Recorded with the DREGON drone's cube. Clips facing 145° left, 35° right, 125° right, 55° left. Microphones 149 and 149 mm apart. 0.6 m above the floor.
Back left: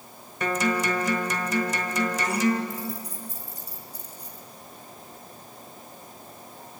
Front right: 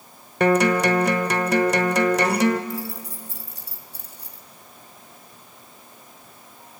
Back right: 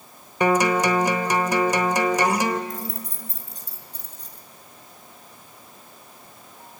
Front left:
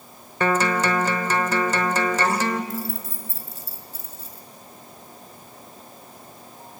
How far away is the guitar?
About 1.2 m.